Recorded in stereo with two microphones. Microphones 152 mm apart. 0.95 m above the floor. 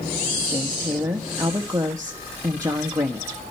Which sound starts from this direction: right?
A woman speaking, at 0.5 s.